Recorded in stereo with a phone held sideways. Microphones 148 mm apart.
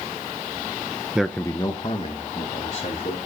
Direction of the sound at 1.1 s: 5° right (ahead or behind).